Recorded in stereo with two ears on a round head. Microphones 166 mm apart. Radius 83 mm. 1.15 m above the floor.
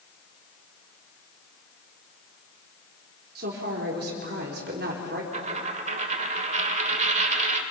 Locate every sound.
3.4 s a woman speaking: 55° right (ahead or behind), 4 m
5.3 s a dropped coin: 40° right (ahead or behind), 1.4 m